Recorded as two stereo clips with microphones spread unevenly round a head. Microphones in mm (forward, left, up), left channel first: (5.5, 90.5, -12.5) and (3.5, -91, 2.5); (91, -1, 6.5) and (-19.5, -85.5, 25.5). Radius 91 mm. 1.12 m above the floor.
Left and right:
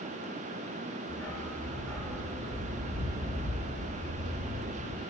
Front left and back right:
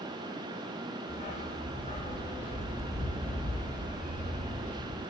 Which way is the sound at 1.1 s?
5° left.